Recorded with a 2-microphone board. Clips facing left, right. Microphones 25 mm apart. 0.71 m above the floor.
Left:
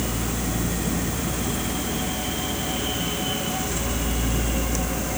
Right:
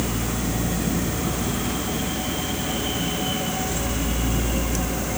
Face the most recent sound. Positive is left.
No sound to turn to.